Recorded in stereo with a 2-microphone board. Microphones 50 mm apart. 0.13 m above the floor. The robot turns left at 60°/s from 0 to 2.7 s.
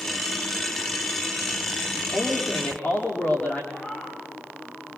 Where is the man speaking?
170° right, 7 m; by 3.6 s 145° left, 7 m.